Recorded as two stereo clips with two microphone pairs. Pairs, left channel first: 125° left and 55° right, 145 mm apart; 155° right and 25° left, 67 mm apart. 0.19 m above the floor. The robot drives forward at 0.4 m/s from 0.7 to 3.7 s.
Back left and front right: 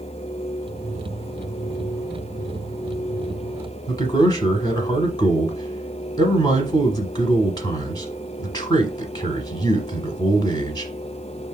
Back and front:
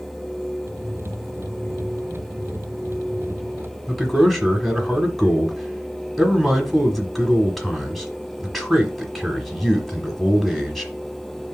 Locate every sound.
3.9 s a man speaking: 120° left, 1.1 m